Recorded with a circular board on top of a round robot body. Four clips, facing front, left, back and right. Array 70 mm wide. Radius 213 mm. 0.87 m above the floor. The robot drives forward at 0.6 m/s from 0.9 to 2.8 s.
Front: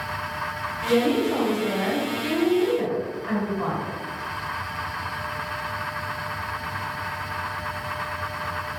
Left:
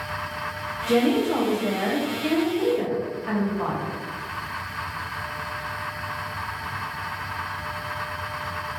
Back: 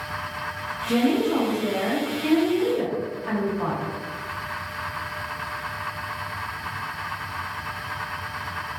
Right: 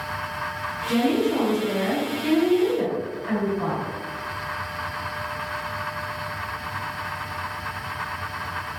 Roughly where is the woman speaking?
Left.